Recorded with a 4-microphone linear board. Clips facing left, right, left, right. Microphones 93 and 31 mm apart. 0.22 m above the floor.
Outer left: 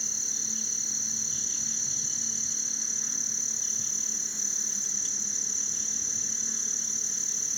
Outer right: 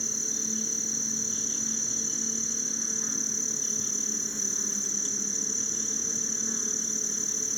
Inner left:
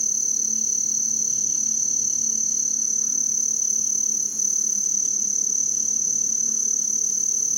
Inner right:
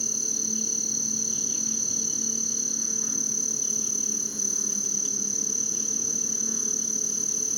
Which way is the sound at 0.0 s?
40° right (ahead or behind).